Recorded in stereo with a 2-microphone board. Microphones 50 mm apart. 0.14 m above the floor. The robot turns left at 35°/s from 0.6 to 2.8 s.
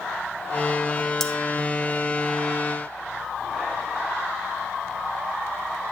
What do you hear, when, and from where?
1.2 s cutlery clinking: 10° left (ahead or behind), 0.8 m